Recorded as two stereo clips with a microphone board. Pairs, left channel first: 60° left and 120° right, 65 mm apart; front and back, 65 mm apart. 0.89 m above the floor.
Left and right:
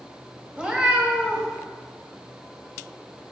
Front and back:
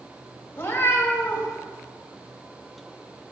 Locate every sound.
0.6 s a cat meowing: 50° right, 1.0 m